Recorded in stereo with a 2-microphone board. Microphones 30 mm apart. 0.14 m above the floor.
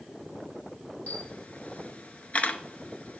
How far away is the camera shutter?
About 0.7 m.